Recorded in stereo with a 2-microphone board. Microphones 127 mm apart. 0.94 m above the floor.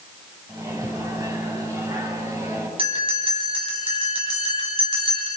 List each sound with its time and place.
0.5 s a microwave: 25° right (ahead or behind), 4.5 m
2.8 s a bell: 45° right (ahead or behind), 5 m